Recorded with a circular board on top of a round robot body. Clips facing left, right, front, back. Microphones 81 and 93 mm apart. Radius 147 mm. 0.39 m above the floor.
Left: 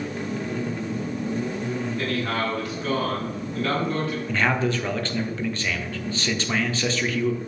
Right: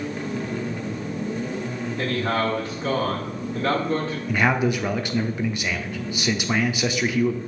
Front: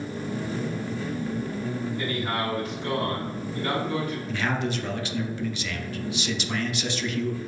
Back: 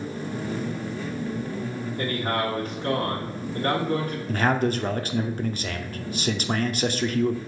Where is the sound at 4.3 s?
165° right, 1.0 m.